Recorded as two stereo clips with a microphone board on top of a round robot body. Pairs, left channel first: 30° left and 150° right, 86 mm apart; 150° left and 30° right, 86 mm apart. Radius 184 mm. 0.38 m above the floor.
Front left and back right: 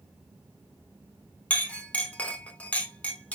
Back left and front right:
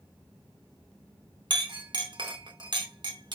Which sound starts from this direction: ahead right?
A clink, at 1.5 s.